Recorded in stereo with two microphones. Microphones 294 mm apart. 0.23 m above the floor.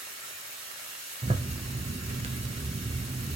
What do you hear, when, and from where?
0.0 s running water: 60° left (ahead or behind), 1.9 m
1.2 s a zipper: 20° right (ahead or behind), 0.6 m